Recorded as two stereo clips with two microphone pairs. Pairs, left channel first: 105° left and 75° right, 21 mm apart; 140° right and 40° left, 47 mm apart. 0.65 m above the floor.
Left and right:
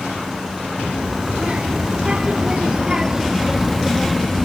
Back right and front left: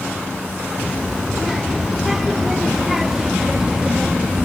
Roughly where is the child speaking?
Ahead right.